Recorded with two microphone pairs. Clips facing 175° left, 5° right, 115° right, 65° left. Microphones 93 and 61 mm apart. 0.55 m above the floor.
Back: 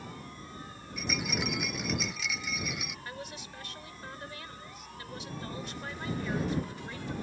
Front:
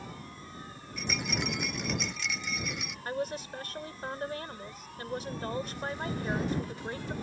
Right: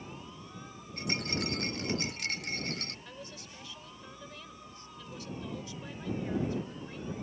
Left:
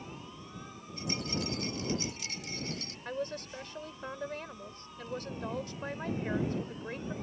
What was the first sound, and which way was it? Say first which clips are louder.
A rattle: even, right 1 dB; 95° right.